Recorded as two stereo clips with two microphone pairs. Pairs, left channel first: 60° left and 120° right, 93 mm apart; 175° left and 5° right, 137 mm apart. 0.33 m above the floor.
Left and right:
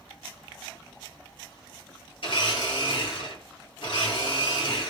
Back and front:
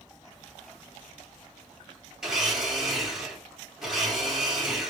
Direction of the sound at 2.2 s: 85° left.